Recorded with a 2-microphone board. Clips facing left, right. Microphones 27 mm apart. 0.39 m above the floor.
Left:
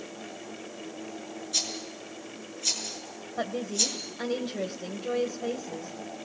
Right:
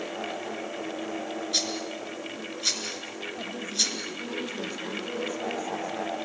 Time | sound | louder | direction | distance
1.5 | a rattle | right 2 dB | 35° right (ahead or behind) | 6 m
3.4 | a woman speaking | left 1 dB | 50° left (ahead or behind) | 2.0 m